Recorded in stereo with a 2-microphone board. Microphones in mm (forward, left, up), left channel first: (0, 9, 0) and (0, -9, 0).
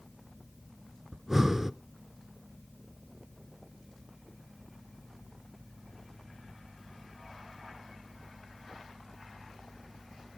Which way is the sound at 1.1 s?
20° right (ahead or behind).